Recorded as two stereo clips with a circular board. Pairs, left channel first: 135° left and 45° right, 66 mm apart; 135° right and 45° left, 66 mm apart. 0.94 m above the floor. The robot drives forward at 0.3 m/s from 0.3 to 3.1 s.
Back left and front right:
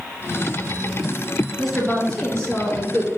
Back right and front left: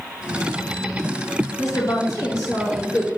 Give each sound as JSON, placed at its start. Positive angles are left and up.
{"t": 1.6, "sound": "a woman speaking", "azimuth_deg": -145, "distance_m": 0.9}